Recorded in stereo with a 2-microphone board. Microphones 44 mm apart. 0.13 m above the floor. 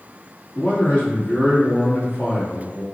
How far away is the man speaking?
About 1.7 m.